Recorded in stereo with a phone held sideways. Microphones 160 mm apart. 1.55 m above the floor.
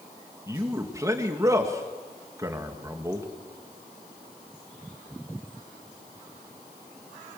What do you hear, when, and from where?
0.5 s a man speaking: 20° right (ahead or behind), 2.5 m